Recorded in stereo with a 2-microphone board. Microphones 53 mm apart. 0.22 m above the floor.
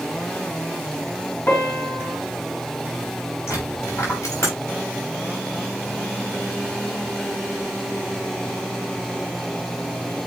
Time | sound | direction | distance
1.5 | a piano | 50° left (ahead or behind) | 1.9 m
3.5 | a dropped coin | 60° left (ahead or behind) | 4.5 m